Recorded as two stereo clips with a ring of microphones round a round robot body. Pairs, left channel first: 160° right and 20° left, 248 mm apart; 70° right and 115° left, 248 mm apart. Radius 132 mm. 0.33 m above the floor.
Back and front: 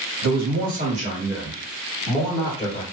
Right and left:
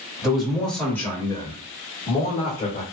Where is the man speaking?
25° left, 1.6 m; by 2.8 s 95° right, 1.4 m.